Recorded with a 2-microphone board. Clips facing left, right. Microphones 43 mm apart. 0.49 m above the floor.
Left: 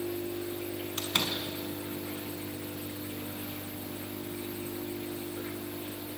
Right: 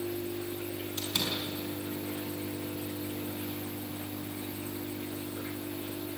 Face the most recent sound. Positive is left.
turn(degrees=55)  # may be behind; listen again after turning